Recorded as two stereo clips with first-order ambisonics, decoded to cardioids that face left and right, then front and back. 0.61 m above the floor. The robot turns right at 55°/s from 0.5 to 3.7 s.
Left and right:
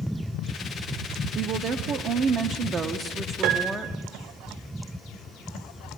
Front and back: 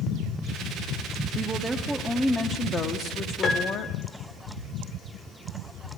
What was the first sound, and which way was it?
A woman speaking, 125° right.